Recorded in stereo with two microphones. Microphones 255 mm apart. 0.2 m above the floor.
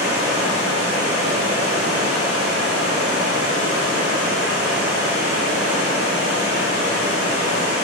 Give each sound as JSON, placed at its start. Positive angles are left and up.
{"t": 0.0, "sound": "running water", "side_deg": -5, "distance_m": 1.7}